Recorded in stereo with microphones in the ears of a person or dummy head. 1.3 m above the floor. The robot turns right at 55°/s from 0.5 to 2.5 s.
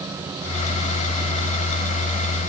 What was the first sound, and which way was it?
Only background noise.